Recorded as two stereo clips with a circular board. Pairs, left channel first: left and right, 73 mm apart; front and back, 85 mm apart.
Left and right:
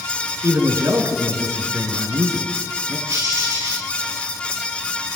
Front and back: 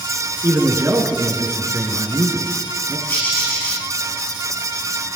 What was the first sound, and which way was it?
A man speaking, 125° right.